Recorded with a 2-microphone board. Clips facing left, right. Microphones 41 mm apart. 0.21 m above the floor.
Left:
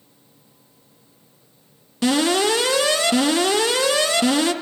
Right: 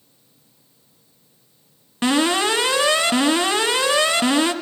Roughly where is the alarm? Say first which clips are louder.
Even; right.